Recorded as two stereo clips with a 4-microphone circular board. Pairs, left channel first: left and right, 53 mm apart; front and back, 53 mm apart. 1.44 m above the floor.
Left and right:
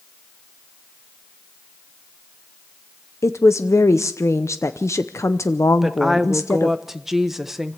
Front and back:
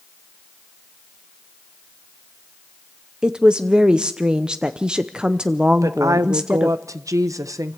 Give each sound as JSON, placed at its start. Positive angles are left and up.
{"t": 3.2, "sound": "a woman speaking", "azimuth_deg": 105, "distance_m": 0.8}
{"t": 5.8, "sound": "a woman speaking", "azimuth_deg": -175, "distance_m": 1.2}